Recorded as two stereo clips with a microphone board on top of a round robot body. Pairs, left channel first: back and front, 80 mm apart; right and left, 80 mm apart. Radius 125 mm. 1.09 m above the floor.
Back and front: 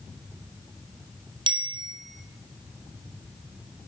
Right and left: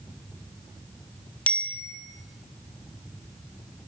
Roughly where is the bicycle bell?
Ahead.